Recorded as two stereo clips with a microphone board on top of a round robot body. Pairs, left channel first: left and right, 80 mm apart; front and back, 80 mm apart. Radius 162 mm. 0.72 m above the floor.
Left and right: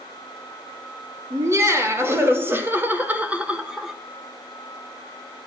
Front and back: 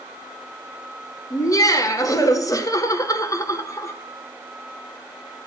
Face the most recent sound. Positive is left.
turn(degrees=-5)